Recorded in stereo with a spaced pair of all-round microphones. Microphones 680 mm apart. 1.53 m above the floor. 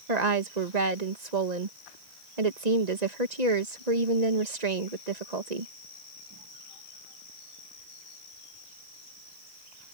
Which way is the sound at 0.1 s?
75° right (ahead or behind).